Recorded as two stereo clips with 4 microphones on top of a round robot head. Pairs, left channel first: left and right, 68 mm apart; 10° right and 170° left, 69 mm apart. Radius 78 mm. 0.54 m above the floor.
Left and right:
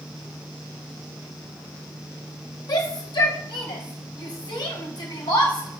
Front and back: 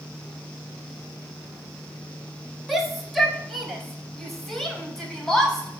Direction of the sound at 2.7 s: 85° left.